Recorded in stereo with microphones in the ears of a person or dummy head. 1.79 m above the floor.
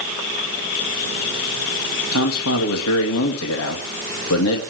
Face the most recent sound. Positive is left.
turn(degrees=75)  # may be behind; listen again after turning